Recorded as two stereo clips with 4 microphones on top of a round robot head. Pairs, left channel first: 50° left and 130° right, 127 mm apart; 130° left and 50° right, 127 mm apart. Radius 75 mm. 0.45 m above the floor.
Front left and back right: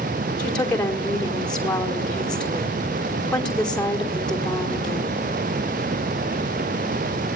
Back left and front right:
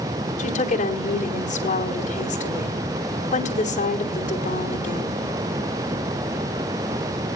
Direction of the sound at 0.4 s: 135° left.